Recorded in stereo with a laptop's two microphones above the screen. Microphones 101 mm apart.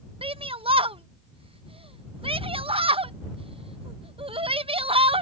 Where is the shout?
65° right (ahead or behind).